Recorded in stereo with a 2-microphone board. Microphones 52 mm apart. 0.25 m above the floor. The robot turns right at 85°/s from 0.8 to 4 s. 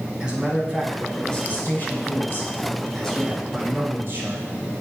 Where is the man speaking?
20° right, 2.5 m; by 4.5 s 110° right, 2.5 m.